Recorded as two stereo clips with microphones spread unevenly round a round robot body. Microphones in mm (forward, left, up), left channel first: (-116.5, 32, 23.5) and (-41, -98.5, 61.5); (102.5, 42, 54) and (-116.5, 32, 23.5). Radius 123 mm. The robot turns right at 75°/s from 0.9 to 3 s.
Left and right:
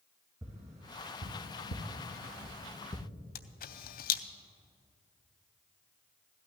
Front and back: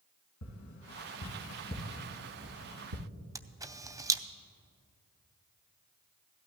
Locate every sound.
0.4 s tapping: 25° left, 2.5 m; by 3.0 s straight behind, 2.5 m
3.4 s a camera shutter: 110° left, 0.5 m